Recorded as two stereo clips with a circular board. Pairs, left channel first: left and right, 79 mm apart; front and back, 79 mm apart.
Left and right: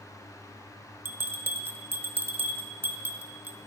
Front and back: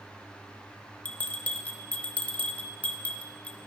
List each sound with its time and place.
1.1 s a bell: 55° right, 1.0 m